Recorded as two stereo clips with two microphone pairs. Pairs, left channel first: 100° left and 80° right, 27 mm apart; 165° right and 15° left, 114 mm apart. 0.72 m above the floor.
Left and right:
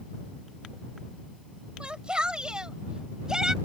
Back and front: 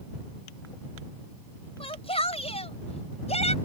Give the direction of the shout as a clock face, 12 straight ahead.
5 o'clock.